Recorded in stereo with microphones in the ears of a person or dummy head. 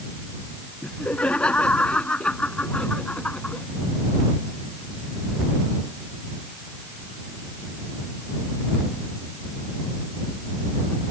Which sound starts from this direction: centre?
Laughter, at 0.8 s.